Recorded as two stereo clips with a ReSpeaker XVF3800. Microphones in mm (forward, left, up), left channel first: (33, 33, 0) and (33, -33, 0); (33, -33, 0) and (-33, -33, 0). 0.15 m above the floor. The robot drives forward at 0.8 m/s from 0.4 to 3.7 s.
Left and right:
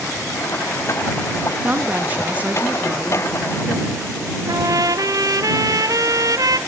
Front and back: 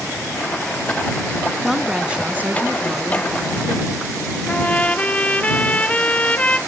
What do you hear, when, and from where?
1.6 s a woman speaking: 90° right, 1.3 m; by 4.0 s 160° right, 2 m
4.5 s a trumpet: 70° right, 0.8 m